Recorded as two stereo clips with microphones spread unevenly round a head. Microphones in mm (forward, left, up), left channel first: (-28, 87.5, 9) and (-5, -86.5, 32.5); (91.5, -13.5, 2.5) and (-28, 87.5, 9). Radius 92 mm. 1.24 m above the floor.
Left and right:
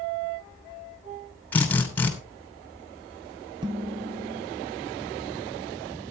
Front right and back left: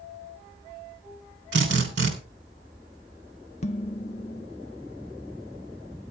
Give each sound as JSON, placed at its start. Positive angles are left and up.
{"t": 1.5, "sound": "a drill", "azimuth_deg": 180, "distance_m": 3.0}
{"t": 3.6, "sound": "dishes clattering", "azimuth_deg": -45, "distance_m": 0.5}